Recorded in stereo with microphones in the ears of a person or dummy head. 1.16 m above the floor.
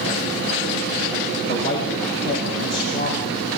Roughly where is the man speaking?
Left.